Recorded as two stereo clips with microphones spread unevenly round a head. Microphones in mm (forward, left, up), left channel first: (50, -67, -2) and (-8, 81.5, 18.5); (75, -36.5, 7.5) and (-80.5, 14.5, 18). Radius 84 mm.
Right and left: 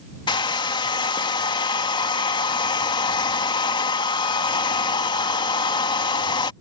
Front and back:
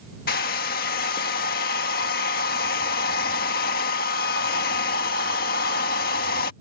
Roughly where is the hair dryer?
Ahead.